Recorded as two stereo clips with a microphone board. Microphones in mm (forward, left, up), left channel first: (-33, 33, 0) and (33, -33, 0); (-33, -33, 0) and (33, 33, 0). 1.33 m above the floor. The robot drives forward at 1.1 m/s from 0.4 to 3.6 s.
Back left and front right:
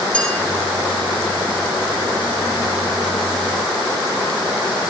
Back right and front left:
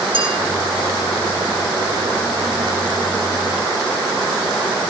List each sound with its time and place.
0.1 s a clink: 60° left, 9.5 m